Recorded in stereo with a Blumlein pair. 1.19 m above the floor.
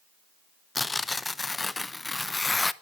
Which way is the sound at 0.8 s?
10° left.